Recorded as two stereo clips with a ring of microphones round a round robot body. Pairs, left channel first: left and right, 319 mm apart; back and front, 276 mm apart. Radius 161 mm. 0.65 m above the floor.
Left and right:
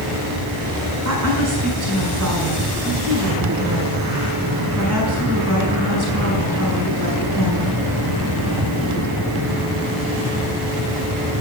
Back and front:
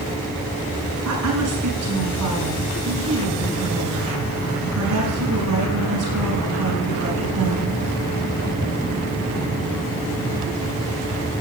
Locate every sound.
1.1 s a woman speaking: 50° right, 5.5 m